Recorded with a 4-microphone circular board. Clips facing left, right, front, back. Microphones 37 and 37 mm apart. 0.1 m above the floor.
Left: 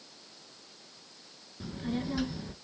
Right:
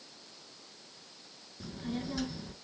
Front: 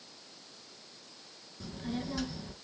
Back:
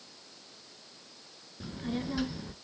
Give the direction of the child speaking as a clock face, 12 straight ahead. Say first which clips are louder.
Left 3 dB, back 2 dB; 7 o'clock.